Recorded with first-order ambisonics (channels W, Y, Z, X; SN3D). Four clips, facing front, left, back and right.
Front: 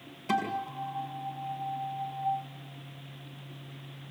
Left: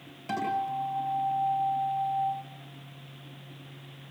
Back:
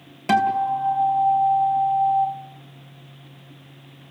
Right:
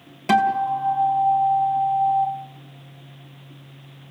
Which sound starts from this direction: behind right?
A guitar, at 0.3 s.